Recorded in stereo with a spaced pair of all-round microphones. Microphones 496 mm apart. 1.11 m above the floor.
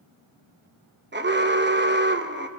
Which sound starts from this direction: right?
An alarm, at 1.1 s.